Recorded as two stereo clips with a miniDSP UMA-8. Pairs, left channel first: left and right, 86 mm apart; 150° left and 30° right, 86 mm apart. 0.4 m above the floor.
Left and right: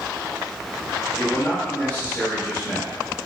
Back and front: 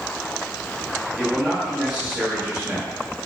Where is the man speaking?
30° left, 0.8 m.